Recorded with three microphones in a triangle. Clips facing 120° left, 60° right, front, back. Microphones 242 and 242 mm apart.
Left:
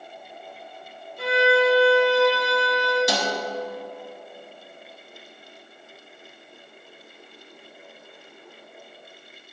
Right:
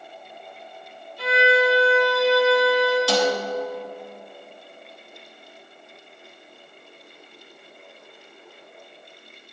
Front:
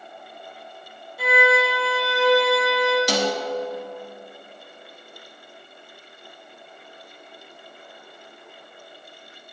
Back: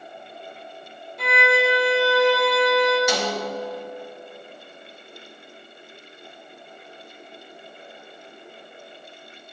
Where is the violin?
80° left, 3.5 m.